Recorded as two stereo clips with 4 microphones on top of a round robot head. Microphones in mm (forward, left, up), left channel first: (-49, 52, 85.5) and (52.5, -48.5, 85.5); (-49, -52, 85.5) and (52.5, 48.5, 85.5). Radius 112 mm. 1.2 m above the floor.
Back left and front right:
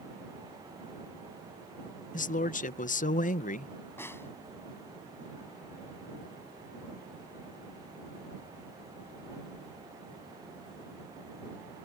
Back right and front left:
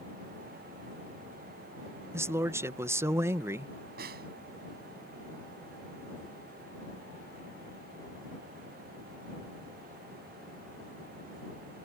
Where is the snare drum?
60° left.